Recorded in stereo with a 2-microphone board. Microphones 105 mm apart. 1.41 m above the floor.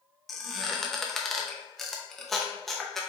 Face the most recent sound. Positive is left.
turn(degrees=5)  # may be behind; listen again after turning